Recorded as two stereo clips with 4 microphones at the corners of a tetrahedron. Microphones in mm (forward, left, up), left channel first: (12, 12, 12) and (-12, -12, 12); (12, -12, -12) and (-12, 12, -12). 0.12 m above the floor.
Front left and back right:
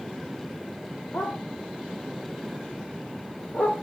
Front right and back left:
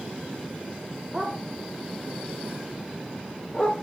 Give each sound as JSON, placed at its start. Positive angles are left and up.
{"t": 1.1, "sound": "a dog barking", "azimuth_deg": 55, "distance_m": 3.5}